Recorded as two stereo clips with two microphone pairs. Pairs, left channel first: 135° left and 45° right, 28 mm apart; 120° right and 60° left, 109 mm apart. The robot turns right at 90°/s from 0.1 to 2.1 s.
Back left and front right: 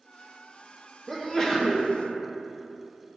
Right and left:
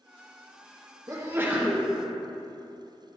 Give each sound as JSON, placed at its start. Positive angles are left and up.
{"t": 1.1, "sound": "a sneeze", "azimuth_deg": 75, "distance_m": 0.9}